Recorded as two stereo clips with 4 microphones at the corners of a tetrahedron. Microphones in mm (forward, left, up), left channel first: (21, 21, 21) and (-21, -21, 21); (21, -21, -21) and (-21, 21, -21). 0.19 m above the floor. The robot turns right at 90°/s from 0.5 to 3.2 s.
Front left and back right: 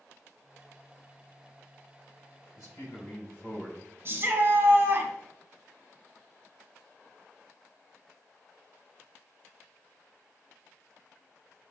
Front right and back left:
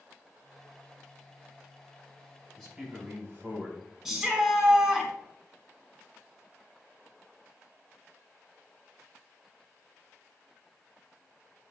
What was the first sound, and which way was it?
A man speaking, 30° left.